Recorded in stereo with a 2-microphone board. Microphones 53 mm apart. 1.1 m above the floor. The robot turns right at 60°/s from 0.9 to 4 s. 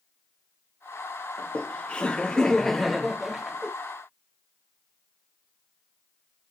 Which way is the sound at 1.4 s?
20° left (ahead or behind).